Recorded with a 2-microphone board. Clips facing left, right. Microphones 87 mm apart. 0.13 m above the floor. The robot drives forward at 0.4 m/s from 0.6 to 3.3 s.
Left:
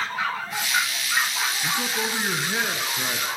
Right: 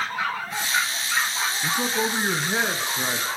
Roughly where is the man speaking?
Centre.